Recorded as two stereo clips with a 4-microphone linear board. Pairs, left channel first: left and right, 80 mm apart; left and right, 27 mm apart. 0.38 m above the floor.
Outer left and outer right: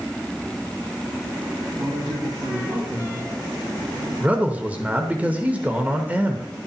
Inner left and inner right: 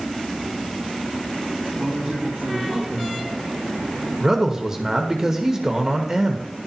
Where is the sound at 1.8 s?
65° right (ahead or behind), 3 m.